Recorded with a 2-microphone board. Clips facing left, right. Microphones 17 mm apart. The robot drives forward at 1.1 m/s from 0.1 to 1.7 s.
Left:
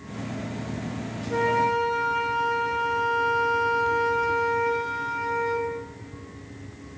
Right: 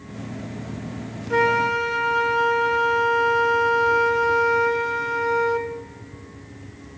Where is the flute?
45° right (ahead or behind), 0.6 m; by 5.7 s 25° right (ahead or behind), 1.0 m.